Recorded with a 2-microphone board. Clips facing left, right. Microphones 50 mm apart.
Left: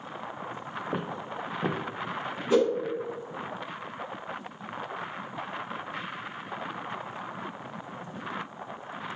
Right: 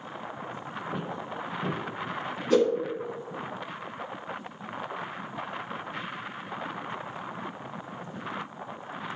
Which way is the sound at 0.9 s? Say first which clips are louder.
Left 1 dB; 70° left (ahead or behind).